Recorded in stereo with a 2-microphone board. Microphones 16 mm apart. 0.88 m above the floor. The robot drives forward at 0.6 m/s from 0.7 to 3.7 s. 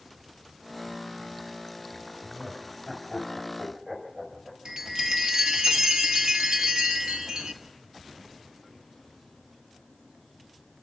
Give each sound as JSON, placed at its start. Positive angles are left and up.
{"t": 2.2, "sound": "laughter", "side_deg": -20, "distance_m": 6.0}
{"t": 4.7, "sound": "a chime", "side_deg": -70, "distance_m": 1.7}